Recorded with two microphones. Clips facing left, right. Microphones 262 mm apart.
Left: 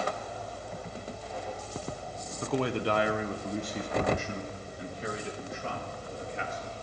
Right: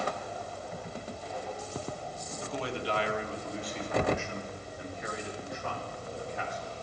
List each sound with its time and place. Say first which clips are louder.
2.4 s a man speaking: left 6 dB; 70° left (ahead or behind), 0.9 m; by 6.7 s 30° left (ahead or behind), 3 m